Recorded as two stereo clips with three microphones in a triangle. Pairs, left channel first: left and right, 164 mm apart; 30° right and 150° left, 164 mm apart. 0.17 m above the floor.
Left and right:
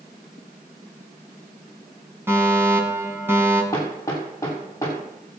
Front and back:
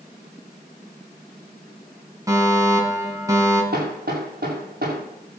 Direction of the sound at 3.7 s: 160° left.